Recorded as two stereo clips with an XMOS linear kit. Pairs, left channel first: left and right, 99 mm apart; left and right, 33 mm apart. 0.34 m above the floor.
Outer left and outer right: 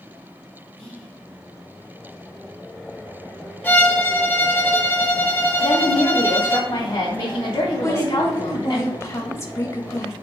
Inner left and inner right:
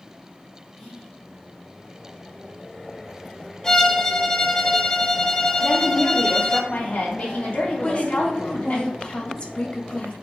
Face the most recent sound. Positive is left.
turn(degrees=30)  # may be behind; listen again after turning